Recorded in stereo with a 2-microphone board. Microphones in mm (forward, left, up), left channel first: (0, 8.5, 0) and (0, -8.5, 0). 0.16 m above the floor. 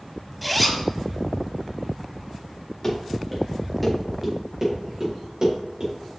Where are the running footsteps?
15° left (ahead or behind), 4 m; by 5.9 s 50° right (ahead or behind), 4.5 m.